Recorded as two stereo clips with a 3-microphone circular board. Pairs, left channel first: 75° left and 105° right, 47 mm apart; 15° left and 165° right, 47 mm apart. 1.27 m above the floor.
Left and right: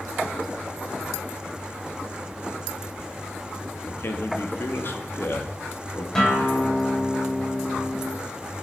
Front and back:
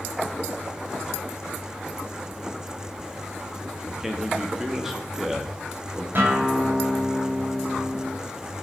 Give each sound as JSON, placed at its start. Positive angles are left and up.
{"t": 3.9, "sound": "a man speaking", "azimuth_deg": 115, "distance_m": 2.5}
{"t": 6.2, "sound": "a guitar", "azimuth_deg": 150, "distance_m": 7.5}